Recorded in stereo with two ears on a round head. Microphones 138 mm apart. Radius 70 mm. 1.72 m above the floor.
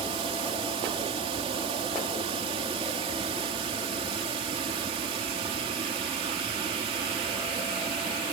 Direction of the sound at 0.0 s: 40° right (ahead or behind).